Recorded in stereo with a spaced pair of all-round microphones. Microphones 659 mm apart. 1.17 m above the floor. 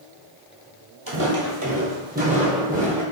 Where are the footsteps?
35° right (ahead or behind), 1.4 m; by 3.0 s centre (ahead or behind), 1.7 m.